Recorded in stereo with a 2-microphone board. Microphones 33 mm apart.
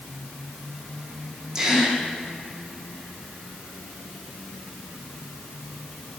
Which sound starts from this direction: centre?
A gasp, at 1.6 s.